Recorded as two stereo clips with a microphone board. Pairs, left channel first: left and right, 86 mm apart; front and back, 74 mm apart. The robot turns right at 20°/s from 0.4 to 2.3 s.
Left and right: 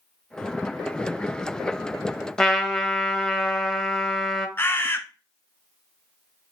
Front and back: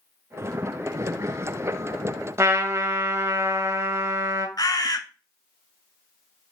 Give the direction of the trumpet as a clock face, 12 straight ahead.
6 o'clock.